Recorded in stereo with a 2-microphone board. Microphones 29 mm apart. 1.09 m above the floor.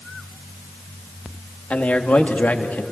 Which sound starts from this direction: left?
A man speaking, at 1.7 s.